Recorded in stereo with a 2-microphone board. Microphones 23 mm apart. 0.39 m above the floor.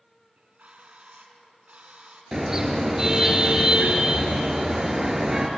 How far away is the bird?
About 3 m.